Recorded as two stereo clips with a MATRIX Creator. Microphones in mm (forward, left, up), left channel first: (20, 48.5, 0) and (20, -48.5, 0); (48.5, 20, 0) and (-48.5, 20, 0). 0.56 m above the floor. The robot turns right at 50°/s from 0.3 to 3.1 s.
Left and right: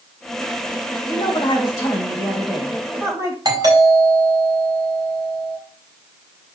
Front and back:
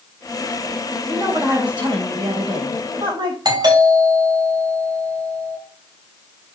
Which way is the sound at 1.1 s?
110° left.